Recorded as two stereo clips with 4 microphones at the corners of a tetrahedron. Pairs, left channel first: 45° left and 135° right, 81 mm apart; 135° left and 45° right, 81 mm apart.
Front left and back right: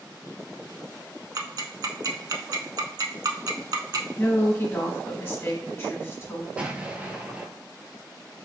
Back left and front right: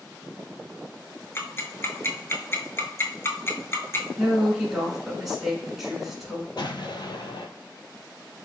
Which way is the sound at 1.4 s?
170° right.